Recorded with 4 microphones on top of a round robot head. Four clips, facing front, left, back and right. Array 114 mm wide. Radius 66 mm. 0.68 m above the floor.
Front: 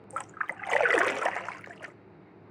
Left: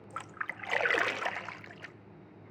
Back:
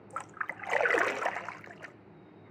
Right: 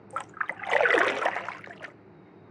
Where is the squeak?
I don't hear a squeak.